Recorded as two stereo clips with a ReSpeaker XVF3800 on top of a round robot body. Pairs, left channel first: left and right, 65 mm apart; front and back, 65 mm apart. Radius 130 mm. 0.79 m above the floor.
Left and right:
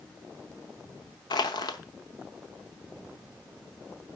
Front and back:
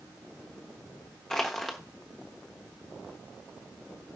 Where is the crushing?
85° left, 0.7 m.